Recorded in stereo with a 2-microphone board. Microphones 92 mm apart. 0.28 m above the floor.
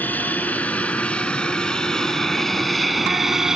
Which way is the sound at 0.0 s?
20° left (ahead or behind).